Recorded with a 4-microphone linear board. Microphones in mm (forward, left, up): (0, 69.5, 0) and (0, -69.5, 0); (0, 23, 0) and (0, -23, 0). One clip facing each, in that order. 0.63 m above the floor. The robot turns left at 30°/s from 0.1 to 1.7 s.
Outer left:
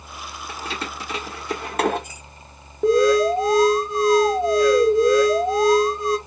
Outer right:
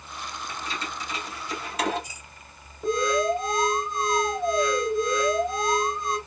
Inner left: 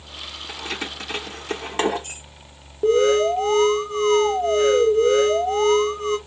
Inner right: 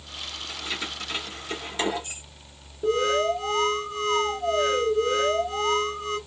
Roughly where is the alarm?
Left.